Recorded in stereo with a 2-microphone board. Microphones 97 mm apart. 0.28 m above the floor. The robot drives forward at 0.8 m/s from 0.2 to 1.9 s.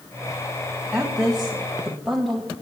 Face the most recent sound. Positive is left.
turn(degrees=0)  # may be behind; listen again after turning